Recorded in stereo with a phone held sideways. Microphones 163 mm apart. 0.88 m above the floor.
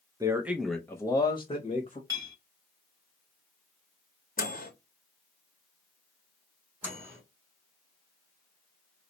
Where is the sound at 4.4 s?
55° left (ahead or behind), 0.9 m.